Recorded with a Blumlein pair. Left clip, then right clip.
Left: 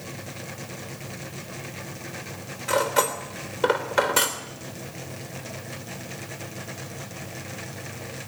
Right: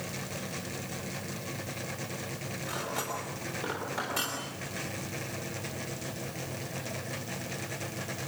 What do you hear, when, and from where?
2.7 s cutlery clinking: 60° left, 3 m